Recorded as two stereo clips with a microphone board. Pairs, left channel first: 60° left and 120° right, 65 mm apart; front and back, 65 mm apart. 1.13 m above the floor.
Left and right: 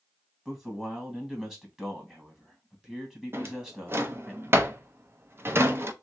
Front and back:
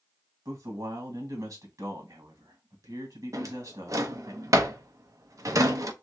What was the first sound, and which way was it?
A man speaking, 160° left.